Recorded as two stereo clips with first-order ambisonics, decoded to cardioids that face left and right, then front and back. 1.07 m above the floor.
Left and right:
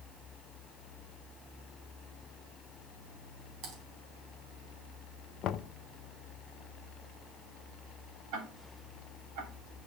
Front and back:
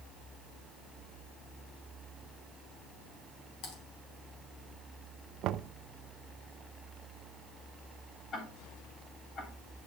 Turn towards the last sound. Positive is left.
turn(degrees=-65)